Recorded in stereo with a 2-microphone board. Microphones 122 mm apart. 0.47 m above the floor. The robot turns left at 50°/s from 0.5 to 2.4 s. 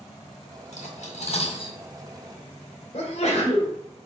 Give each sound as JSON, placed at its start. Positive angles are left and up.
{"t": 0.7, "sound": "cutlery clinking", "side_deg": 80, "distance_m": 2.0}
{"t": 2.9, "sound": "a sneeze", "side_deg": 60, "distance_m": 2.5}